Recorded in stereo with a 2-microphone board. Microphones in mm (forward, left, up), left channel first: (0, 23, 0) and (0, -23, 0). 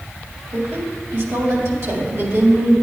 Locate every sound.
0.5 s a woman speaking: 80° right, 2 m